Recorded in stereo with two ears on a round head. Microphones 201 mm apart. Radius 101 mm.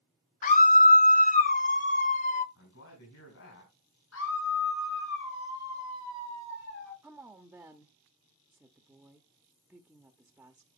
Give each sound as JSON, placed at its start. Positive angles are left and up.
{"t": 0.4, "sound": "a scream", "side_deg": 35, "distance_m": 0.7}
{"t": 2.5, "sound": "a man speaking", "side_deg": 65, "distance_m": 5.0}
{"t": 4.1, "sound": "a scream", "side_deg": 65, "distance_m": 7.0}
{"t": 7.0, "sound": "a woman speaking", "side_deg": -5, "distance_m": 0.8}